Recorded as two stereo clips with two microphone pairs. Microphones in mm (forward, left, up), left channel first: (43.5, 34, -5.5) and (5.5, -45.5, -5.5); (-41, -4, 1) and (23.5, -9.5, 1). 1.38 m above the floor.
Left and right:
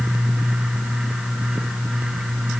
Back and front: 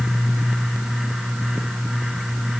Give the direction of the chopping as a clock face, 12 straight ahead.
I don't hear chopping.